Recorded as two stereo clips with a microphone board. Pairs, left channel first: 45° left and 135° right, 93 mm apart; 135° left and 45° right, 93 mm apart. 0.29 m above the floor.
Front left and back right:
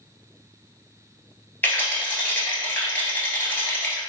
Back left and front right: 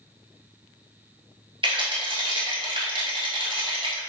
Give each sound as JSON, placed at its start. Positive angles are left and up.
{"t": 1.6, "sound": "a rattle", "azimuth_deg": -20, "distance_m": 0.9}